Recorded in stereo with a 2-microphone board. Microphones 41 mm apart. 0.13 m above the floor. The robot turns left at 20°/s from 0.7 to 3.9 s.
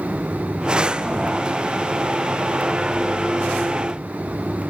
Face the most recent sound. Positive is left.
No sound to turn to.